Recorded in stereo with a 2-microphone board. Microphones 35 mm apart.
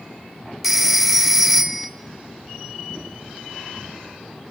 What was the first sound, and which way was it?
A phone ringing, 5° right (ahead or behind).